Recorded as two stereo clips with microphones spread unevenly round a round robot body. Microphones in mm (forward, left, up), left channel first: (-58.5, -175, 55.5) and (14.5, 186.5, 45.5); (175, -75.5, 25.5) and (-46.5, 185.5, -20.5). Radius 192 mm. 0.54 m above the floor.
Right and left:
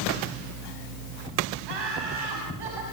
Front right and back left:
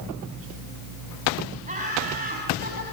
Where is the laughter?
65° left, 5 m.